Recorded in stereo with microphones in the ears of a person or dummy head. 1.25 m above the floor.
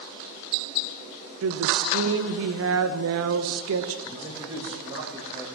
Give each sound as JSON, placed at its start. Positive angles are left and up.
{"t": 1.4, "sound": "a woman speaking", "side_deg": -65, "distance_m": 0.7}
{"t": 4.0, "sound": "a man speaking", "side_deg": -20, "distance_m": 1.3}